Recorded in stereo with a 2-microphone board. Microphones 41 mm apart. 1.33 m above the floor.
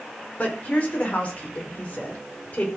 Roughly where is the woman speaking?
Left.